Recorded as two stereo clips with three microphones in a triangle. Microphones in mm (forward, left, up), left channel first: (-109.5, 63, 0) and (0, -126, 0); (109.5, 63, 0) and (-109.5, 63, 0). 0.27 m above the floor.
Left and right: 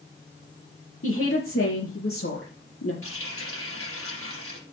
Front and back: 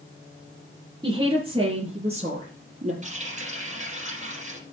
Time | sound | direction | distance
1.0 | a woman speaking | 110° left | 5 m
3.0 | a running tap | 120° left | 5.5 m